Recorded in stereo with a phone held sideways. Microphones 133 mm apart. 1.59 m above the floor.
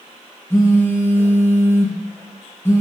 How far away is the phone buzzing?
About 1.3 m.